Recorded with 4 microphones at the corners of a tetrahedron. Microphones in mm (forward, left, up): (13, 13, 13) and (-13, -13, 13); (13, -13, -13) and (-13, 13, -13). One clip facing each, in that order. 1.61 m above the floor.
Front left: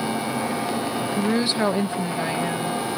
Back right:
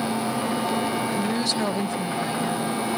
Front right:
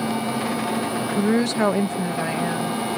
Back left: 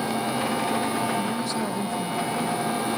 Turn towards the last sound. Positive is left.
turn(degrees=-10)